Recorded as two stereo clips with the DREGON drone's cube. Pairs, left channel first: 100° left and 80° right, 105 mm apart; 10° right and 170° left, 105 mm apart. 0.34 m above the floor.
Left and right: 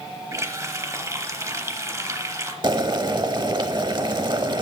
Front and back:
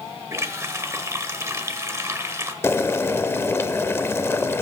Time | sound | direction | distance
0.3 | a running tap | 130° right | 0.9 m
2.6 | boiling | 70° right | 0.8 m